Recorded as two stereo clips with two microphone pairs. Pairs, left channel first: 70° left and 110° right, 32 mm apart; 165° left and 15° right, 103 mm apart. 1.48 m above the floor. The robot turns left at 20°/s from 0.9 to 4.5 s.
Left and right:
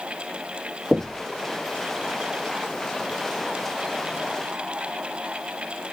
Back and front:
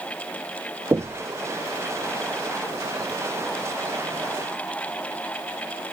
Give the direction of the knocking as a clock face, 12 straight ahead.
2 o'clock.